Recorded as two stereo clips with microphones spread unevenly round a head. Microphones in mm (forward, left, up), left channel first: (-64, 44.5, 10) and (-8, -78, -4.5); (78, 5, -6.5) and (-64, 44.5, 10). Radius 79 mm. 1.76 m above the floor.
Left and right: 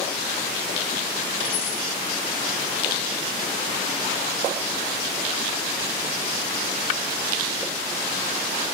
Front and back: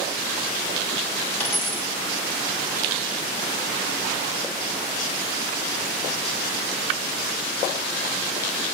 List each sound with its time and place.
1.4 s a dropped coin: 65° left, 3.5 m